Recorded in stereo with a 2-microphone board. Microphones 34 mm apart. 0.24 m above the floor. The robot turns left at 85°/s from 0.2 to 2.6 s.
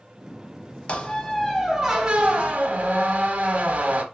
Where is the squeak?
65° left, 0.6 m; by 4.0 s 80° right, 0.6 m.